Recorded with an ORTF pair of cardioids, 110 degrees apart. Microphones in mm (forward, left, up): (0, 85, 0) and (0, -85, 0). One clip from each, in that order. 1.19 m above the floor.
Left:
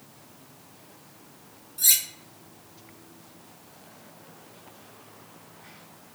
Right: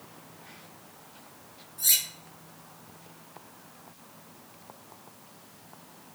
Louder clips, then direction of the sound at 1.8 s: Left 3 dB; 40° left.